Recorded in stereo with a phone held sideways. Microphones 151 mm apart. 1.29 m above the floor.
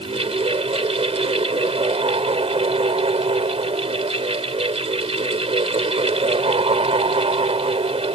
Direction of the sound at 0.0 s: 40° right (ahead or behind).